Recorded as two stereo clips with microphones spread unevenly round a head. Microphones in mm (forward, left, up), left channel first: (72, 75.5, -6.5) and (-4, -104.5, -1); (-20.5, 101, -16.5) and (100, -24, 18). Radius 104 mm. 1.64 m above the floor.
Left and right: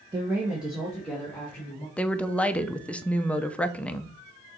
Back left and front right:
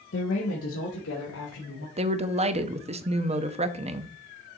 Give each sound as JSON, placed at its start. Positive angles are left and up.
{"t": 0.1, "sound": "a woman speaking", "azimuth_deg": 175, "distance_m": 1.2}
{"t": 2.0, "sound": "a woman speaking", "azimuth_deg": -15, "distance_m": 0.7}